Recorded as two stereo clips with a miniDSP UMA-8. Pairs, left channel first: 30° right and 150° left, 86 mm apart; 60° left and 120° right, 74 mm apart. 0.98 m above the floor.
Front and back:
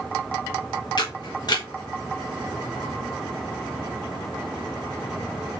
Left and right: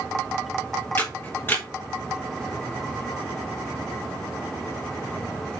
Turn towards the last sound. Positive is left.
turn(degrees=0)